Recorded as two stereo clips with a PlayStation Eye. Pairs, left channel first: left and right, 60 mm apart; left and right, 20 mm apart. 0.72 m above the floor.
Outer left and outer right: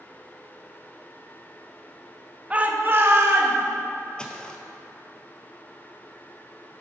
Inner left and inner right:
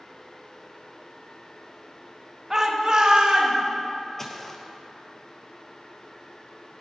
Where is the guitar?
I don't hear a guitar.